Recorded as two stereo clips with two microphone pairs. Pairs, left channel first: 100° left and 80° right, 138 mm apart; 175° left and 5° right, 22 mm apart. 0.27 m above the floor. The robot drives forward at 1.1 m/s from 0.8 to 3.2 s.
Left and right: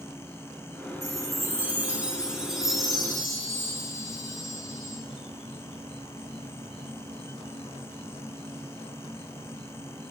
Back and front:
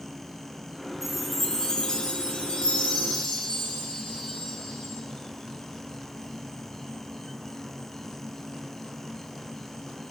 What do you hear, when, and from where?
0.0 s an insect: 20° left, 2 m; by 10.1 s 140° left, 1.1 m
1.0 s a chime: 60° right, 0.8 m; by 5.0 s 170° right, 2.5 m